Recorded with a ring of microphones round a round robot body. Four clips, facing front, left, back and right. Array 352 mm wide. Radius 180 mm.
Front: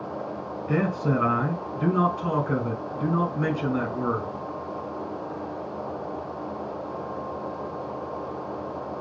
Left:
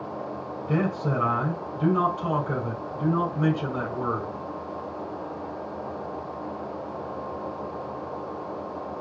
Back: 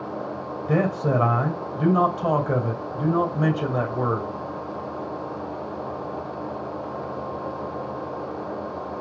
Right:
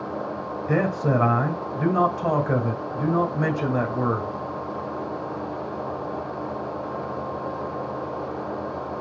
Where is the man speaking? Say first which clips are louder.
Right 4 dB, back 3 dB; 140° right, 2.5 m.